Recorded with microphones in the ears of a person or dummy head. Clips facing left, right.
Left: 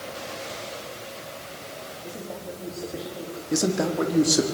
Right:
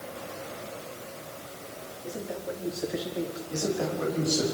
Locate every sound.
2.0 s a man speaking: 10° right (ahead or behind), 5 m; by 3.4 s 30° right (ahead or behind), 4 m
3.5 s a man speaking: 75° left (ahead or behind), 4 m